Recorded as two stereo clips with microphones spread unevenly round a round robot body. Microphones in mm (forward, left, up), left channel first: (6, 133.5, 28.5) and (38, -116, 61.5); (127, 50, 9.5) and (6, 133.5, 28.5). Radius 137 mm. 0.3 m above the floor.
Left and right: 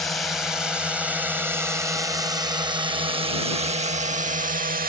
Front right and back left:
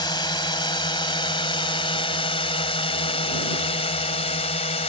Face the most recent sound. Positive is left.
turn(degrees=-35)